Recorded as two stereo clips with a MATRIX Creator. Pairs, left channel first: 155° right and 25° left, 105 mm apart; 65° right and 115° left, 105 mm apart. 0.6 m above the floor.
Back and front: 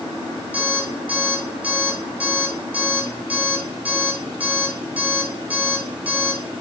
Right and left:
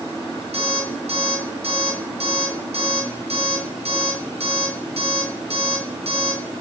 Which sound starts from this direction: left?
An alarm clock, at 0.5 s.